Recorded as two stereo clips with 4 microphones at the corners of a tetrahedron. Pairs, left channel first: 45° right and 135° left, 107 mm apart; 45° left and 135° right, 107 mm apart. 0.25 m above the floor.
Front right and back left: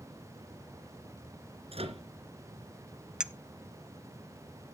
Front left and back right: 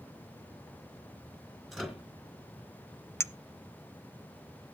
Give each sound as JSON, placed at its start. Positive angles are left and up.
{"t": 1.7, "sound": "a microwave", "azimuth_deg": 135, "distance_m": 3.0}
{"t": 3.2, "sound": "a clink", "azimuth_deg": 65, "distance_m": 0.6}